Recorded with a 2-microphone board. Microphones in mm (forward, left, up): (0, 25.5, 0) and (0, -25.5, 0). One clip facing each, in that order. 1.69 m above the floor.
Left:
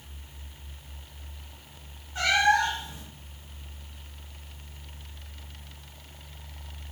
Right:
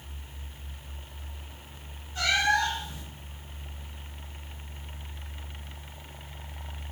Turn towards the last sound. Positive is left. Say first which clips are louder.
# left 3 dB
turn(degrees=25)  # may be behind; listen again after turning